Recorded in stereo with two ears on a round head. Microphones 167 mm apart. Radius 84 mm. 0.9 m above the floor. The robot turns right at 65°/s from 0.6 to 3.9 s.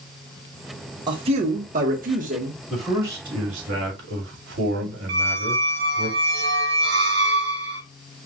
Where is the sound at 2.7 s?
175° left, 2.5 m; by 6.1 s 110° right, 2.5 m.